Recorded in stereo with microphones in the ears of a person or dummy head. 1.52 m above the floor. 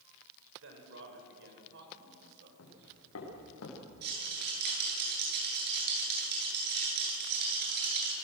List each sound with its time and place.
0.6 s a man speaking: 75° right (ahead or behind), 5 m; by 2.5 s 60° right (ahead or behind), 5.5 m
2.6 s footsteps: 80° left, 8.5 m
4.0 s a rattle: 55° right (ahead or behind), 9 m